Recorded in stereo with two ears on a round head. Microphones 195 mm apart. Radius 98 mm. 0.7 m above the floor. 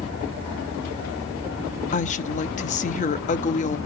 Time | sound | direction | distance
1.9 | a woman speaking | 35° left (ahead or behind) | 0.8 m